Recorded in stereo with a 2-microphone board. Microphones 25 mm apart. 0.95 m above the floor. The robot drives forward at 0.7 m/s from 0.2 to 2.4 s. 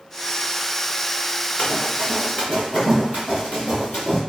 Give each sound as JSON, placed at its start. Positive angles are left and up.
{"t": 1.6, "sound": "running footsteps", "side_deg": 65, "distance_m": 2.0}